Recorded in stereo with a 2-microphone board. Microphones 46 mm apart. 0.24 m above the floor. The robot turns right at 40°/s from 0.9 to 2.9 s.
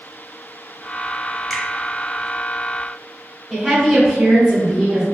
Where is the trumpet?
I don't hear a trumpet.